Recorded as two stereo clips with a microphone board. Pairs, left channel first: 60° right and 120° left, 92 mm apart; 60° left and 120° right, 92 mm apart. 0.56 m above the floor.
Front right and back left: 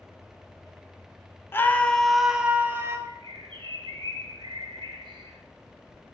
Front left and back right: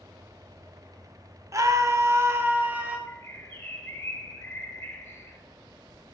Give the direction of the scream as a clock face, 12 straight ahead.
4 o'clock.